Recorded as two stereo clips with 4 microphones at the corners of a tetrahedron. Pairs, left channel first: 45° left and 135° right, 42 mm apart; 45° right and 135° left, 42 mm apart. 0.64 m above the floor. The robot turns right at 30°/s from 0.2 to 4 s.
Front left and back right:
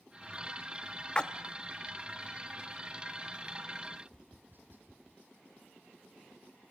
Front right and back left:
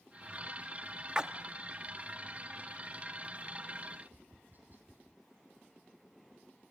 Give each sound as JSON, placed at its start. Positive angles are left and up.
{"t": 1.1, "sound": "a splash", "azimuth_deg": 85, "distance_m": 0.8}
{"t": 3.9, "sound": "tapping", "azimuth_deg": 180, "distance_m": 3.0}